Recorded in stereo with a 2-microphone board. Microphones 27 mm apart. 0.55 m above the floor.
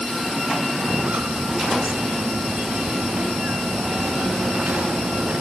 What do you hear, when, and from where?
0.8 s footsteps: 75° right (ahead or behind); by 5.4 s 80° right